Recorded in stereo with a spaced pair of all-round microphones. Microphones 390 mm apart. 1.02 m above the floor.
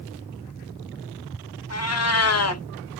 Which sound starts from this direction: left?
A cat meowing, at 1.7 s.